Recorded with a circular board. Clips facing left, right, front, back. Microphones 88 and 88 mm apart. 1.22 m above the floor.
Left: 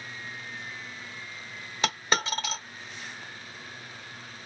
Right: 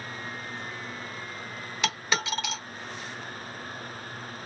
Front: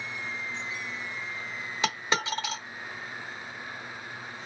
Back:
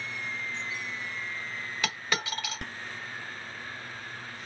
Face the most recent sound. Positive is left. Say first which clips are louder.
# left 1 dB, front 4 dB
turn(degrees=55)